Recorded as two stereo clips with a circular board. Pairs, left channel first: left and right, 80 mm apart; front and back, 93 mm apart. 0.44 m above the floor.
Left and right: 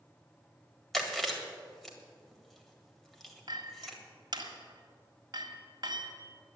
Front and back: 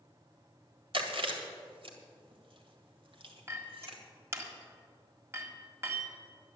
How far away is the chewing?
About 1.8 m.